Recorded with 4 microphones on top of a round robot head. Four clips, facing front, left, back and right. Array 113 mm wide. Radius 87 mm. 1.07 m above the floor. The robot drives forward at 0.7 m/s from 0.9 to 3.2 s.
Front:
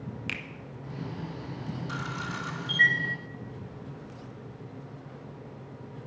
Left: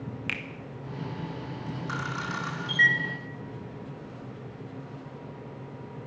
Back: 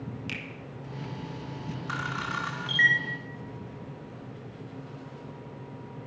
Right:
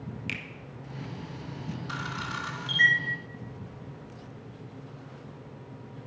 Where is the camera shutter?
140° left, 1.6 m; by 3.0 s 155° left, 2 m.